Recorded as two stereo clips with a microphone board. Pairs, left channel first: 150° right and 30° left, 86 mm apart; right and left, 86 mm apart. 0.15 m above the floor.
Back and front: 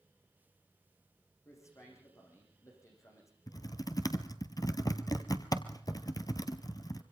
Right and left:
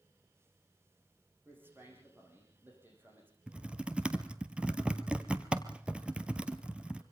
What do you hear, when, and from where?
1.4 s a man speaking: 155° left, 9.5 m
3.5 s typing on a keyboard: 165° left, 1.1 m